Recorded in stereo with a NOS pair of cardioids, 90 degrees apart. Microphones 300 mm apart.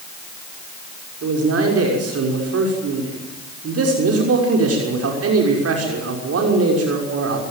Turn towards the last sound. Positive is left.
turn(degrees=-50)